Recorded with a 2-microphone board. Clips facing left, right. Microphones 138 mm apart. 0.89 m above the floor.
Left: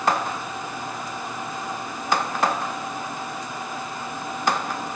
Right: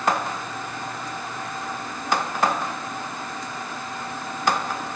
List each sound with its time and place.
Only background noise.